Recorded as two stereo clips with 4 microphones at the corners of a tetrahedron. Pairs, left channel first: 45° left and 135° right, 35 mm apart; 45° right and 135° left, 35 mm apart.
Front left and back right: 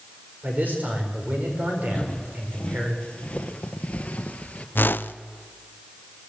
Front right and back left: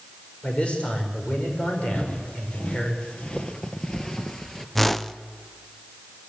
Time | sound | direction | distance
0.4 | a man speaking | 100° right | 5 m
1.9 | footsteps | 10° right | 2.5 m
4.8 | a whoosh | 40° left | 0.6 m